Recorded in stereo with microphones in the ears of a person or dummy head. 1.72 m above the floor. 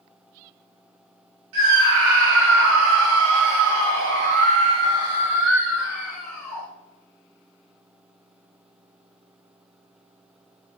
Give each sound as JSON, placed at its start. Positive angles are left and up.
{"t": 1.5, "sound": "a scream", "side_deg": -65, "distance_m": 3.5}